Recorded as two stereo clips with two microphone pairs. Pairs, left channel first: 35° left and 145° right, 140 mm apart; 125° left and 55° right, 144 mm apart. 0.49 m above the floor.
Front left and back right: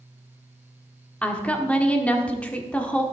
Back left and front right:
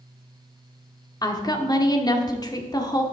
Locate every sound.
1.2 s a woman speaking: 110° left, 1.2 m